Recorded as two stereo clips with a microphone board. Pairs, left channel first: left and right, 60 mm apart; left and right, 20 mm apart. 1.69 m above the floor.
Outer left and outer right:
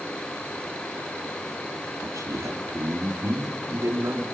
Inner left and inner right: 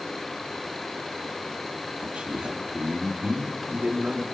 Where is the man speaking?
75° right (ahead or behind), 4 m; by 4.2 s 85° right, 4.5 m.